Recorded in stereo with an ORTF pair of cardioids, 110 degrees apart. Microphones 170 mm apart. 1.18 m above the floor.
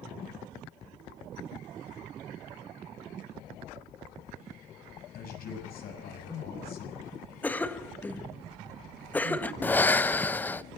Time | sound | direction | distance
5.1 | a man speaking | 65° left | 6.5 m
7.4 | a cough | 10° left | 1.4 m
9.6 | breathing | 10° left | 0.5 m